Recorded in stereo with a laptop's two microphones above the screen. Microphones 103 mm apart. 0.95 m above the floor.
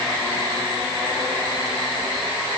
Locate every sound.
Only background noise.